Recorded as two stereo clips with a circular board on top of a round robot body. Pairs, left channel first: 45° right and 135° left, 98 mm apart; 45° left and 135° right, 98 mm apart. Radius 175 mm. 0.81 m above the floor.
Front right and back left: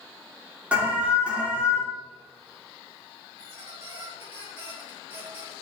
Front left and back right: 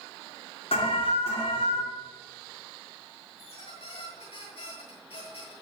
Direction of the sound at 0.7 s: 60° left.